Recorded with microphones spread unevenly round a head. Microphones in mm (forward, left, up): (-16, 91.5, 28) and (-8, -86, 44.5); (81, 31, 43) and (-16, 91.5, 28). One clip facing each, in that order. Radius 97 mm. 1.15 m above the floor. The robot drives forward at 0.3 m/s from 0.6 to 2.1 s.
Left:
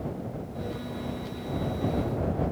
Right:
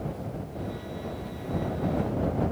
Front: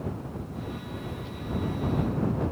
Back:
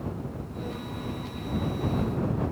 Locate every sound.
Only background noise.